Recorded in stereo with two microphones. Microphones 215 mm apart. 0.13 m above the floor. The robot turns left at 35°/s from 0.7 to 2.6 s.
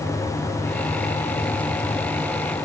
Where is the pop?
I don't hear a pop.